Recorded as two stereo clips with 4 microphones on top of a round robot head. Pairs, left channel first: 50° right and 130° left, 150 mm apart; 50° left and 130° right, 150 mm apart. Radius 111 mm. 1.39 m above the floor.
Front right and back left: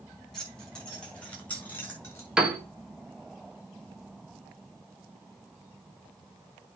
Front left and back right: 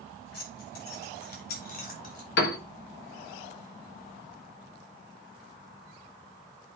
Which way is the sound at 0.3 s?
35° left.